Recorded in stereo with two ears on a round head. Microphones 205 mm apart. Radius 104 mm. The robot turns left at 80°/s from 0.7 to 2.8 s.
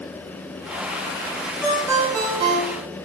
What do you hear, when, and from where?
1.6 s a ringtone: 10° left, 2.5 m; by 2.8 s 85° right, 2.5 m